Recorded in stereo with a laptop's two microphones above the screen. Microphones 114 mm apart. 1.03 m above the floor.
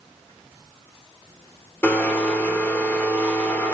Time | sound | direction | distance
1.8 | a blender | 20° left (ahead or behind) | 3 m